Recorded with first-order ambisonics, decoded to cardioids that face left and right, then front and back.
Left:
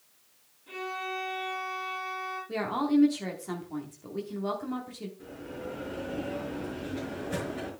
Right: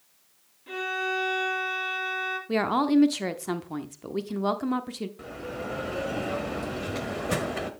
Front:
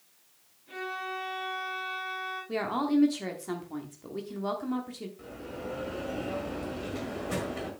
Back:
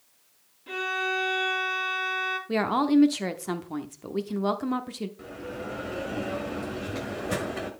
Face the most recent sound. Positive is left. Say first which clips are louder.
# right 5 dB, back 3 dB
turn(degrees=-105)